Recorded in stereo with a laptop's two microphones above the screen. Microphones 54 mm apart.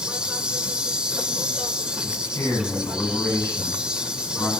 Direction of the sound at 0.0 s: 15° right (ahead or behind).